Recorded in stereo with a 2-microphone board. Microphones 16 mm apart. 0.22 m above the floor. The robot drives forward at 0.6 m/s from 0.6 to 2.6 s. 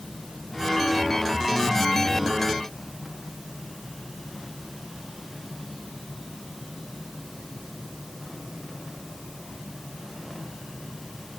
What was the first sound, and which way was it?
Only background noise.